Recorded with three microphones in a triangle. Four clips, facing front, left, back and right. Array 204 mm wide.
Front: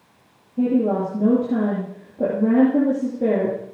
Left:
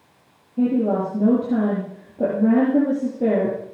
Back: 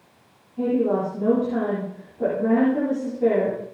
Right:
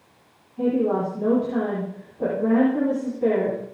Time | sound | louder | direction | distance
0.6 | a woman speaking | left 2 dB, front 2 dB | 65° left | 9 m